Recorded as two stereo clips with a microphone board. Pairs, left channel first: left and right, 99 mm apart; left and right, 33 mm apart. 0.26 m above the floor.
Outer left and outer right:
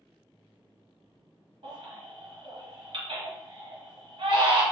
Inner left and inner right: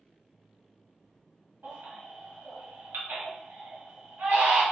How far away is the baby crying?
About 1.5 m.